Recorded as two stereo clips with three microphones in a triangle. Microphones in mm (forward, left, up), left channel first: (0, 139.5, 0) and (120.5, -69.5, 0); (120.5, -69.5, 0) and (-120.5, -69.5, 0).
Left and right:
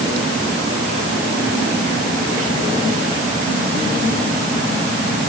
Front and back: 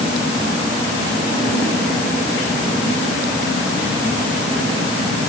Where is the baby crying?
No baby crying in this recording.